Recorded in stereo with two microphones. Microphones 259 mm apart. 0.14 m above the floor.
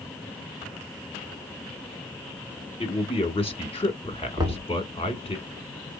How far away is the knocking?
About 0.9 m.